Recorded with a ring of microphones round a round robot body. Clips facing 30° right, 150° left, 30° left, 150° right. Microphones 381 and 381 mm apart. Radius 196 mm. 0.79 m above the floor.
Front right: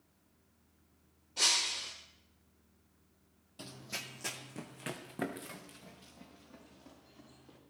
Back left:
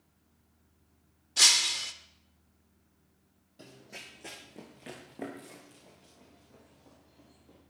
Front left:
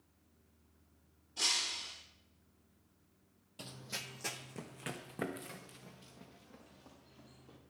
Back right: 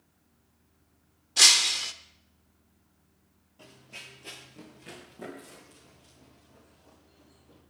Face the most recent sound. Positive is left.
turn(degrees=25)